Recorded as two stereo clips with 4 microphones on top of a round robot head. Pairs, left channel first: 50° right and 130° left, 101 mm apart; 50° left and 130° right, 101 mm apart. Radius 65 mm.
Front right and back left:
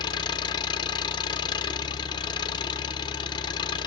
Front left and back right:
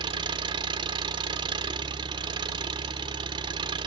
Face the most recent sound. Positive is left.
turn(degrees=-90)